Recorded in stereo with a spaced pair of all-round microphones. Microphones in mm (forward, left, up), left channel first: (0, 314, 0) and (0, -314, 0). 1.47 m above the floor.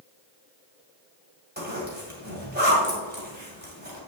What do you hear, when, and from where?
1.6 s a zipper: 15° right (ahead or behind), 2.5 m